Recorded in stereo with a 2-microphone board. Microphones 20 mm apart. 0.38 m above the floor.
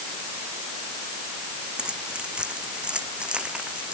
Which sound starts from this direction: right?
Keys jangling, at 1.8 s.